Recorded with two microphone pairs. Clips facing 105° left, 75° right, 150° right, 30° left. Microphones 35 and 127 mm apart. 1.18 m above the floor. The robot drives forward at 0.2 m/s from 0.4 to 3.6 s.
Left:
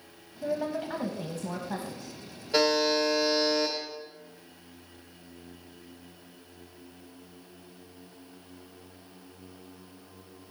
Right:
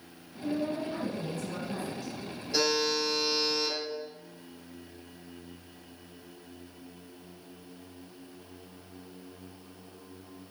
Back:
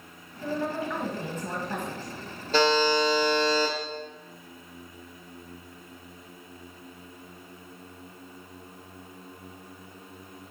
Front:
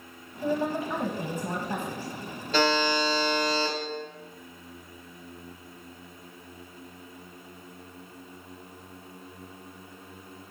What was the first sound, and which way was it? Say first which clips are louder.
A woman speaking: left 1 dB, front 2 dB; 95° left.